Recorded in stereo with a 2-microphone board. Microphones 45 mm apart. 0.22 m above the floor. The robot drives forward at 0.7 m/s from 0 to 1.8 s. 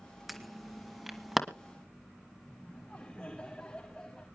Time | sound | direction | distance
0.3 | an alarm | 5° right (ahead or behind) | 2 m
2.5 | laughter | 20° left (ahead or behind) | 9.5 m